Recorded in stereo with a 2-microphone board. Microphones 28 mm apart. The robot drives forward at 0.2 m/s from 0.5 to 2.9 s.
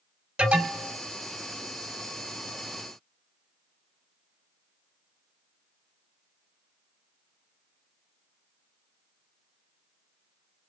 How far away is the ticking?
I don't hear ticking.